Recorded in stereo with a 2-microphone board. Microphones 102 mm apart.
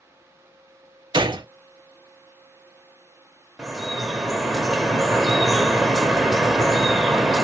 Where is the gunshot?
50° right (ahead or behind), 0.5 m.